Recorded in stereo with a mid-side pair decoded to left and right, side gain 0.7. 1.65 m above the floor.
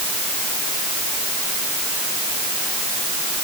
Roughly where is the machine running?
No machine running in this recording.